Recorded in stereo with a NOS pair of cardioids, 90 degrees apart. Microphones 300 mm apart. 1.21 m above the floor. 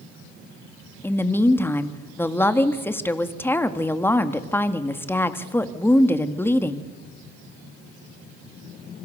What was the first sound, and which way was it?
A woman speaking, 5° left.